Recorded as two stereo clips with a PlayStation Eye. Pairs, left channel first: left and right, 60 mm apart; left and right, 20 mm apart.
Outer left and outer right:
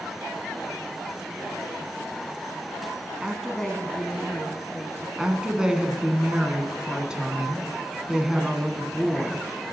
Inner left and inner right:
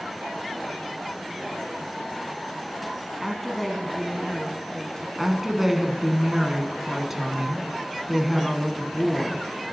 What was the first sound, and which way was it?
A woman speaking, 10° right (ahead or behind).